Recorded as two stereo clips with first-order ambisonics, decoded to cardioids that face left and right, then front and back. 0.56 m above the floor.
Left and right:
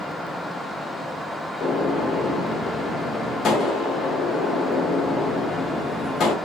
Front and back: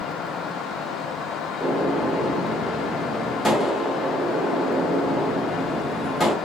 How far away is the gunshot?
About 0.6 m.